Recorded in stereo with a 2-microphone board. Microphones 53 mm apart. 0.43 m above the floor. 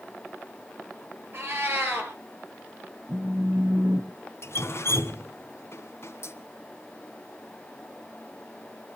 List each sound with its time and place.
1.3 s a cat meowing: 45° right (ahead or behind), 4 m
3.1 s a phone buzzing: 65° right (ahead or behind), 3 m
4.4 s dripping: 55° left (ahead or behind), 2 m